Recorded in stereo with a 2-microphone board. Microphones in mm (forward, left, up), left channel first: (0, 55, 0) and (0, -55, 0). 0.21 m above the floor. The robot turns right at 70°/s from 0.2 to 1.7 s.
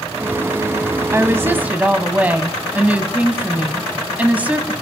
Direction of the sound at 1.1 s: 25° right (ahead or behind).